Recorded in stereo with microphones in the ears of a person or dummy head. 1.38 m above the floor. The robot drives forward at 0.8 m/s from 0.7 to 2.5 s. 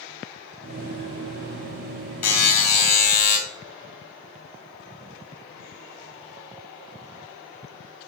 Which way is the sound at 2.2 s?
35° left (ahead or behind).